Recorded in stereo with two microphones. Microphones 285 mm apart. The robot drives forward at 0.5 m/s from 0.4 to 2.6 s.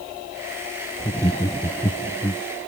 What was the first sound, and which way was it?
Laughter, 10° left (ahead or behind).